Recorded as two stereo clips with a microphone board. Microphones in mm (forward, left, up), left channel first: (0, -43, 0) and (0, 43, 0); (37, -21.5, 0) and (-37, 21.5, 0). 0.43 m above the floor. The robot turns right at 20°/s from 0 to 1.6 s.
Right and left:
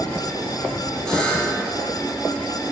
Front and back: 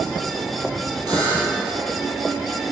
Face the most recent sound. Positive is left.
turn(degrees=-160)